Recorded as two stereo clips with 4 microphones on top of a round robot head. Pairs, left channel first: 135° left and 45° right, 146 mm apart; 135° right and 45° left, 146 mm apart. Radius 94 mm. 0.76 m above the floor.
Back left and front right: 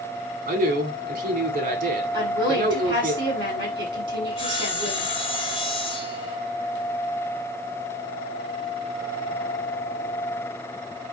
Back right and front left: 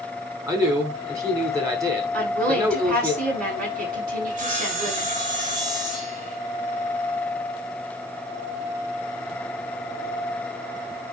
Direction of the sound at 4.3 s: 80° left.